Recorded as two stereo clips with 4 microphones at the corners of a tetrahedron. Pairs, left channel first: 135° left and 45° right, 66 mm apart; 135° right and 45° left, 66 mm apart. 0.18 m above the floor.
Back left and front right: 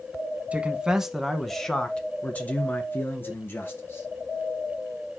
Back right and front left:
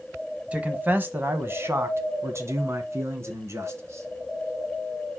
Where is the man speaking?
Straight ahead, 1.1 m; by 4.1 s 85° left, 2.5 m.